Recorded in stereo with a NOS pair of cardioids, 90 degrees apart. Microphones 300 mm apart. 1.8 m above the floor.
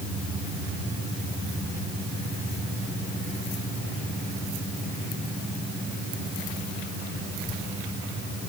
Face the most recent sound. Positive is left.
No sound to turn to.